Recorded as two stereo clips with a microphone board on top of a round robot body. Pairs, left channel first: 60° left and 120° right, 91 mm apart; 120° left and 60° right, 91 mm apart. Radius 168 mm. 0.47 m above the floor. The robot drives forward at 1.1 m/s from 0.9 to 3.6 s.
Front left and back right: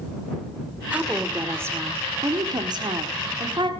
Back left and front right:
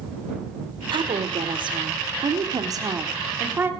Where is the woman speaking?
45° right, 3 m; by 3.7 s 125° right, 2.5 m.